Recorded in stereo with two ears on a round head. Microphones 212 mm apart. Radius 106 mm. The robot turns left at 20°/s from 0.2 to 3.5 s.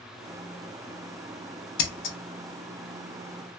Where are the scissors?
60° left (ahead or behind), 0.7 m; by 2.2 s 50° left (ahead or behind), 0.7 m.